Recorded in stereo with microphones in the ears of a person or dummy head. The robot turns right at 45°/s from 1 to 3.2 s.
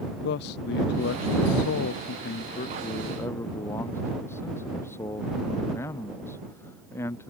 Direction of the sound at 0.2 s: 65° left.